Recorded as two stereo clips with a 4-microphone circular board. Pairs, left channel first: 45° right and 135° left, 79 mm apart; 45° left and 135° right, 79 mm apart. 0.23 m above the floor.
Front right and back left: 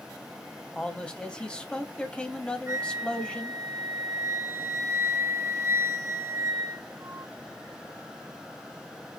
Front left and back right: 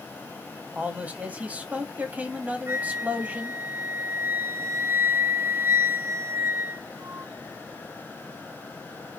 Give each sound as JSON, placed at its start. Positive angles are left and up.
{"t": 0.8, "sound": "a man speaking", "azimuth_deg": -100, "distance_m": 1.2}
{"t": 2.7, "sound": "a flute", "azimuth_deg": 175, "distance_m": 0.8}